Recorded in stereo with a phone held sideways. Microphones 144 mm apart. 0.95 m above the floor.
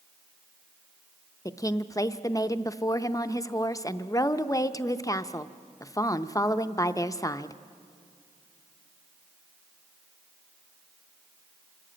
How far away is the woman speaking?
About 0.6 m.